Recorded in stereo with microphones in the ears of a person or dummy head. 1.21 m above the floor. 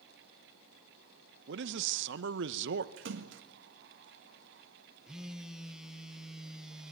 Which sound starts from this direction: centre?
A phone buzzing, at 5.1 s.